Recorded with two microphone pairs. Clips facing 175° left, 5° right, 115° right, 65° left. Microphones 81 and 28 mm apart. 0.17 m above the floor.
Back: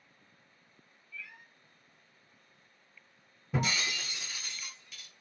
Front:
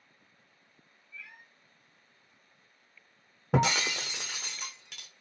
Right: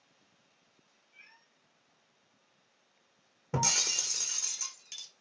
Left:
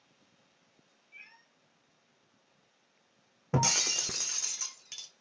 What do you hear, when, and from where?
1.1 s a cat meowing: 60° left, 1.9 m
3.5 s breaking glass: 5° right, 0.6 m